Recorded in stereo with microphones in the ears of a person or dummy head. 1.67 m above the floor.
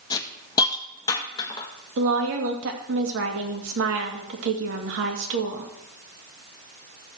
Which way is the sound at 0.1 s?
30° left (ahead or behind).